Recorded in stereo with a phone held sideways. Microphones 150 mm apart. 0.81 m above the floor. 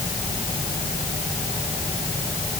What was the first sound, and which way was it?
Only background noise.